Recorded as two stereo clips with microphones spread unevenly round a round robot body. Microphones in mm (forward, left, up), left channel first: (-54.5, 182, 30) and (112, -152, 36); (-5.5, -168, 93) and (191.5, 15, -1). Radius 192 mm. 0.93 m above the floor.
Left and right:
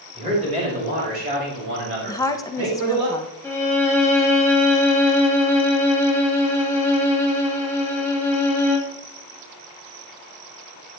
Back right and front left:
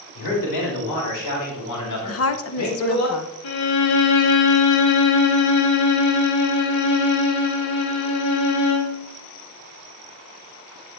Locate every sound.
0.1 s a man speaking: 140° right, 5 m; by 3.1 s 110° right, 4 m
2.1 s a woman speaking: 170° right, 0.7 m
3.4 s a violin: 160° right, 1.8 m